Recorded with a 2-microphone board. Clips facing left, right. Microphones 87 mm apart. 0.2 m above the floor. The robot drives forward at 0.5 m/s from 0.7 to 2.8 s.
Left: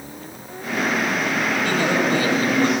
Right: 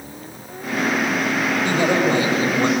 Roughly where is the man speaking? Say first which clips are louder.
Right 3 dB; right.